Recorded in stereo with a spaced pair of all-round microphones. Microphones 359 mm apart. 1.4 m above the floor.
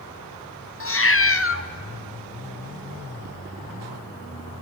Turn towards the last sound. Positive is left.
turn(degrees=35)  # may be behind; listen again after turning